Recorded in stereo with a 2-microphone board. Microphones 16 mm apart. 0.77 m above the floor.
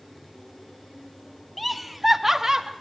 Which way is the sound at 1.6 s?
5° left (ahead or behind).